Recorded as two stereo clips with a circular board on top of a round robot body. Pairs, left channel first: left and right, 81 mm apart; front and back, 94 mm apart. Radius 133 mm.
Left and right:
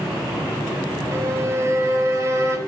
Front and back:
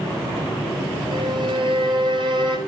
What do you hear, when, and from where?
1.1 s a violin: 145° right, 4 m